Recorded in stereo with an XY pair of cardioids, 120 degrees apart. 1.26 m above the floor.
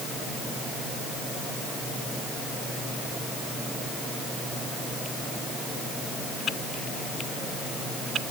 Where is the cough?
I don't hear a cough.